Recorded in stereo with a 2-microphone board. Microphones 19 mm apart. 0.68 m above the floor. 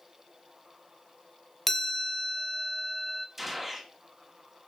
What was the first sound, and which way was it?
A chime, 15° left (ahead or behind).